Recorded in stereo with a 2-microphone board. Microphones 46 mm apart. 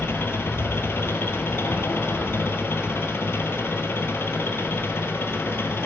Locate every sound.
0.0 s an engine running: 60° left (ahead or behind), 1.1 m